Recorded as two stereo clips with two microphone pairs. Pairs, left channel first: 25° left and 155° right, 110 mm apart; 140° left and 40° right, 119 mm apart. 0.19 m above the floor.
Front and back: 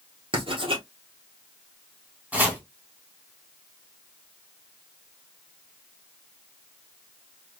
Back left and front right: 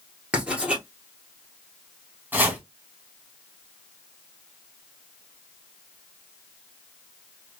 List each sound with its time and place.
0.3 s writing: 120° right, 1.6 m
2.3 s chopping: 95° right, 1.4 m